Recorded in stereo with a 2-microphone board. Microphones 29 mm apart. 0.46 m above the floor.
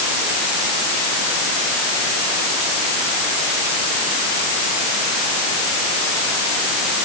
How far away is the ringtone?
I don't hear a ringtone.